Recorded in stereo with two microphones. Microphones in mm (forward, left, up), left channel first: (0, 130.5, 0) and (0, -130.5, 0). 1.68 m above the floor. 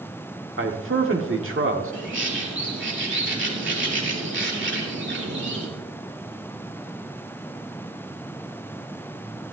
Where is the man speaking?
50° right (ahead or behind), 1.5 m.